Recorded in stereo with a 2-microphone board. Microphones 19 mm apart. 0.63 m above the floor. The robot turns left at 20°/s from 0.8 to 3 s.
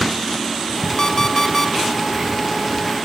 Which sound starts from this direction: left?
An alarm clock, at 1.0 s.